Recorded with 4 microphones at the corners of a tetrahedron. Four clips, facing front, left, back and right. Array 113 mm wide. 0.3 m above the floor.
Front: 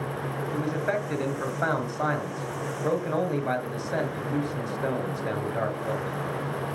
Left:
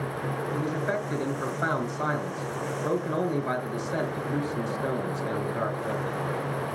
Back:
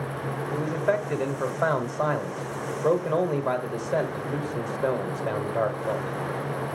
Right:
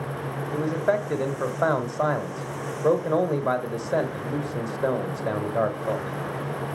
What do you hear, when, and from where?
0.5 s a man speaking: 105° right, 1.3 m